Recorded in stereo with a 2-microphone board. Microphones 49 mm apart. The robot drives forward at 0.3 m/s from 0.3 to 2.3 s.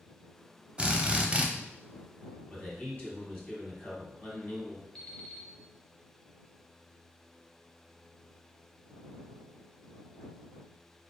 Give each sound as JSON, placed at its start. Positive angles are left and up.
{"t": 0.8, "sound": "a drill", "side_deg": -25, "distance_m": 0.6}
{"t": 2.5, "sound": "a man speaking", "side_deg": 35, "distance_m": 2.0}
{"t": 5.0, "sound": "an alarm clock", "side_deg": 10, "distance_m": 0.8}